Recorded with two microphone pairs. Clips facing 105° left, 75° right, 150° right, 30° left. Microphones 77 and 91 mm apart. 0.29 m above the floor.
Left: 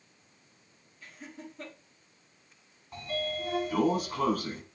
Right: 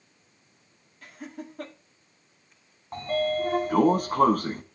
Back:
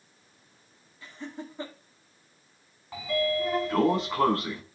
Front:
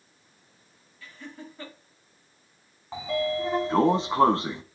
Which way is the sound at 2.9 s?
35° right.